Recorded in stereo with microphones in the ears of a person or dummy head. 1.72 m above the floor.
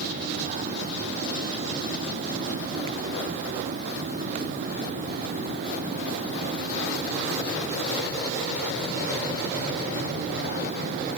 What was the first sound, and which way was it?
Only background noise.